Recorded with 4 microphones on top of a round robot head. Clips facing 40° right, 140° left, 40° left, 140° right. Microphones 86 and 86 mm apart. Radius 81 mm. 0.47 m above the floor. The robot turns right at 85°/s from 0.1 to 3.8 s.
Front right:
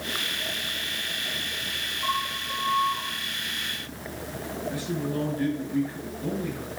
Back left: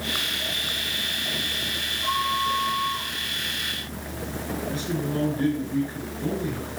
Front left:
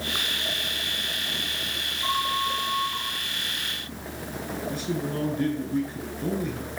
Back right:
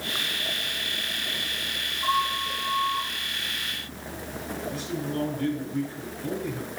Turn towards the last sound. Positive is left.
turn(degrees=70)